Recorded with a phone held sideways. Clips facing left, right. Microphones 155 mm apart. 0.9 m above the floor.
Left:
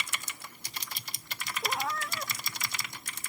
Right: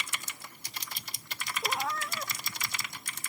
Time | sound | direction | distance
1.6 | a cat meowing | centre (ahead or behind) | ?